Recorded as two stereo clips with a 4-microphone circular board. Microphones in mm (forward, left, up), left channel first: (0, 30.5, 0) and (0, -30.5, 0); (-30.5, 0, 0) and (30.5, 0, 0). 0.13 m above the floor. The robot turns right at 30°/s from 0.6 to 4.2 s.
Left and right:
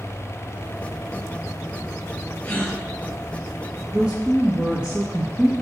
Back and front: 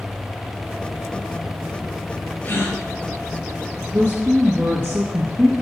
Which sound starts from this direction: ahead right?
A woman speaking, at 3.9 s.